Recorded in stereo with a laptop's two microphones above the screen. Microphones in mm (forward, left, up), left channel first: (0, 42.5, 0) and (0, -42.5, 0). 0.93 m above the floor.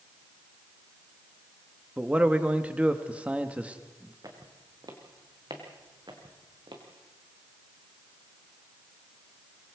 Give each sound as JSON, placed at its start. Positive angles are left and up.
{"t": 2.0, "sound": "a man speaking", "side_deg": -15, "distance_m": 1.1}
{"t": 4.2, "sound": "footsteps", "side_deg": -45, "distance_m": 4.0}